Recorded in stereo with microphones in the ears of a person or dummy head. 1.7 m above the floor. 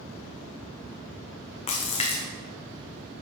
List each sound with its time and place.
1.7 s a splash: 35° left (ahead or behind), 1.1 m